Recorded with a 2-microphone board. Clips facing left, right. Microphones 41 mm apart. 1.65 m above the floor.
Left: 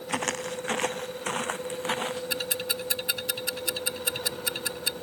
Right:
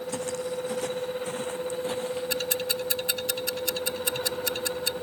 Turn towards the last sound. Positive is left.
turn(degrees=10)  # may be behind; listen again after turning